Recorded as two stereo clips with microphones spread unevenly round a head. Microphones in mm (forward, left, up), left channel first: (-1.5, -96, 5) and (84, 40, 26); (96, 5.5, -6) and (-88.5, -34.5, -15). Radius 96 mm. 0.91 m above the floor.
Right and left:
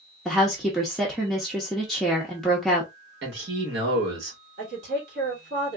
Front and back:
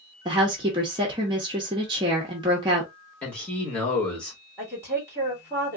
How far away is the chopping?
I don't hear chopping.